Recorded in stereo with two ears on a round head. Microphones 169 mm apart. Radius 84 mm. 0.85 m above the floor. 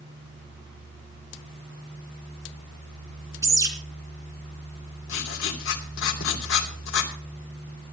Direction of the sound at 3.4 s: 15° right (ahead or behind).